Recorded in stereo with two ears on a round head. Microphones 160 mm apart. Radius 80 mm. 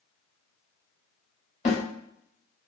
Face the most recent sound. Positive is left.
turn(degrees=40)  # may be behind; listen again after turning